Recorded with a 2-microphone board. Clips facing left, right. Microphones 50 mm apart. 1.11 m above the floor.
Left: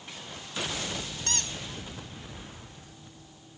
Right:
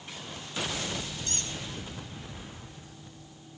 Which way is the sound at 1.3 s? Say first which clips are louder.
Left 3 dB; 75° left (ahead or behind).